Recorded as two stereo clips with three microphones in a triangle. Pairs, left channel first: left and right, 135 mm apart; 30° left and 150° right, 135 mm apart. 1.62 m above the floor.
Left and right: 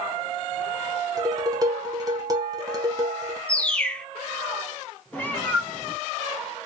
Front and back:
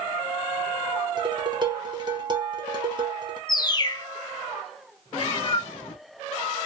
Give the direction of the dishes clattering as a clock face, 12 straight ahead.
4 o'clock.